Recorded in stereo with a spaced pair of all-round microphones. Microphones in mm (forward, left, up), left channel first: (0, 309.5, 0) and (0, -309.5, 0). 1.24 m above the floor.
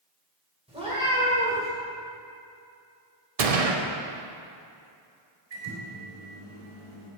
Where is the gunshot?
75° right (ahead or behind), 0.8 m.